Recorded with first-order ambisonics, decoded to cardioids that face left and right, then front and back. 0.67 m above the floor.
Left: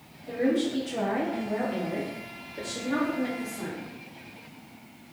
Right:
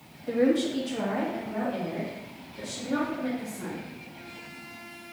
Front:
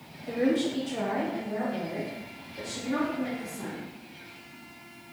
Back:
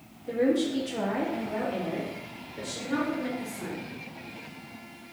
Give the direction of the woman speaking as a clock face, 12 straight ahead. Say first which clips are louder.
Right 2 dB, back 1 dB; 3 o'clock.